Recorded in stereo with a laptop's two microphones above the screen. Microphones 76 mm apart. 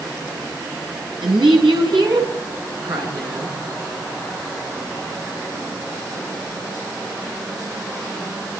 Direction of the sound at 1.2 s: 85° right.